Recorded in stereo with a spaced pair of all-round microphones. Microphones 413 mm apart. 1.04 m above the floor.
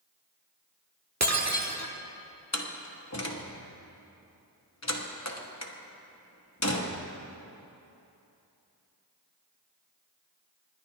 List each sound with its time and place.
1.2 s breaking glass: 40° right (ahead or behind), 1.0 m
2.5 s a door slam: 40° left (ahead or behind), 1.1 m